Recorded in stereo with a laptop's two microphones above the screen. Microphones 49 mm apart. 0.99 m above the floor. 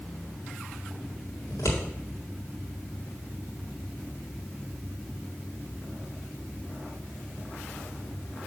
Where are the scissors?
80° left, 1.9 m.